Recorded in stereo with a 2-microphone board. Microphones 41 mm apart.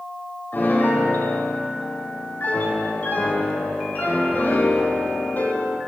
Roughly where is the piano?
Left.